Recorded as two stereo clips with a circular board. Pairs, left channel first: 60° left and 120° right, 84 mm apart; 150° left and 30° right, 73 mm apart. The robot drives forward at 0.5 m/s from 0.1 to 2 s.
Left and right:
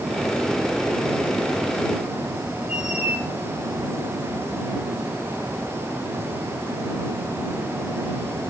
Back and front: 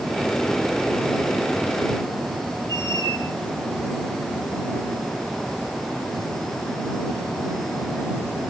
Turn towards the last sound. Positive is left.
turn(degrees=-40)